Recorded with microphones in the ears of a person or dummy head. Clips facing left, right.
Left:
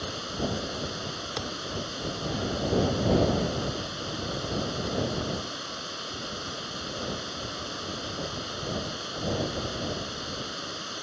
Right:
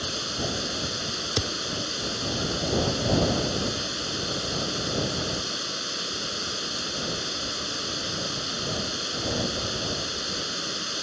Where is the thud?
45° right (ahead or behind).